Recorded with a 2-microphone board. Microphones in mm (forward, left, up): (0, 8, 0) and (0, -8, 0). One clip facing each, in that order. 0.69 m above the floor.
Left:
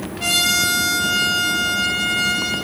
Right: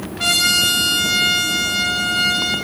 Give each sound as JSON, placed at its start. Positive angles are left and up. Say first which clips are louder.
{"t": 0.2, "sound": "a trumpet", "louder": "right 2 dB", "side_deg": -45, "distance_m": 1.3}